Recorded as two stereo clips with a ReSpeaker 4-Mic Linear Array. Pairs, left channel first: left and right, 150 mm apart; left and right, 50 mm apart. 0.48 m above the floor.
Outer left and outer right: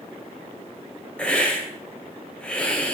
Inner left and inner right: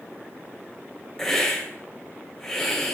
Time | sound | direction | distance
1.2 | a hiss | 5° left (ahead or behind) | 2 m